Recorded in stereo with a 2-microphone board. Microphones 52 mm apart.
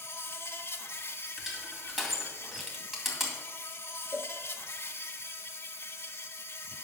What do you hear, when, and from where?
0.0 s an insect: 55° left (ahead or behind), 1.2 m
1.4 s crushing: 5° right (ahead or behind), 2.5 m
4.1 s a cowbell: 45° right (ahead or behind), 1.1 m